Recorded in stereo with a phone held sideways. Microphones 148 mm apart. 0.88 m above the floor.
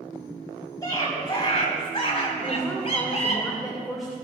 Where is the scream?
25° left (ahead or behind), 5 m; by 3.4 s 40° left (ahead or behind), 5 m.